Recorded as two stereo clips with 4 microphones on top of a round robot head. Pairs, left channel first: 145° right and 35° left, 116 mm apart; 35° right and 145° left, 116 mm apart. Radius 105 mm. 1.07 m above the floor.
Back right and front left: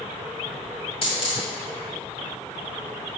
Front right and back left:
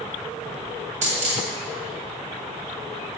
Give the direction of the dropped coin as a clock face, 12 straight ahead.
6 o'clock.